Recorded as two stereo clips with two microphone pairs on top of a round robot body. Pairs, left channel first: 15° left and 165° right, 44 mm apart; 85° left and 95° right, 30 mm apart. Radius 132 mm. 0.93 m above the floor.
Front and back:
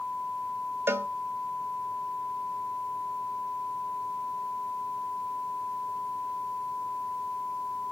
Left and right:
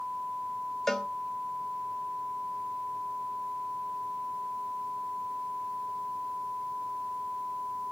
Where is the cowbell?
165° left, 0.8 m.